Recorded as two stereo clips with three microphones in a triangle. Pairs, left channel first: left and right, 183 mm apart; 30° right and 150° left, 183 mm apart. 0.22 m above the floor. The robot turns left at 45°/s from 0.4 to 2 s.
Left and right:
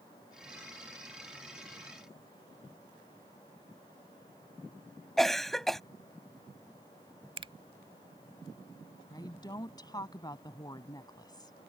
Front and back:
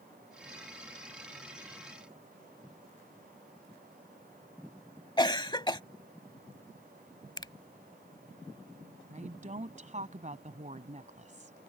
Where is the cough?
5° left.